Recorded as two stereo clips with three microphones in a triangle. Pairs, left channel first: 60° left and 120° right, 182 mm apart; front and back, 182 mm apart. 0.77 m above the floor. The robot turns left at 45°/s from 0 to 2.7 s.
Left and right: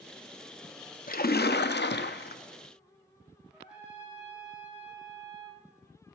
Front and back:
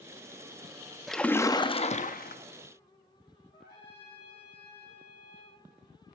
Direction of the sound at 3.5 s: 35° right.